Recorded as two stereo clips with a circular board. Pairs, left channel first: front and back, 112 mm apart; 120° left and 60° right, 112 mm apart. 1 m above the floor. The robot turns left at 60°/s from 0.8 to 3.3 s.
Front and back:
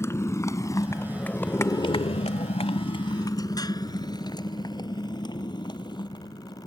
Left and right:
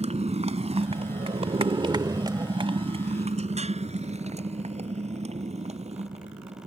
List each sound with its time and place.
0.0 s a motorcycle: 65° right; by 6.7 s 50° right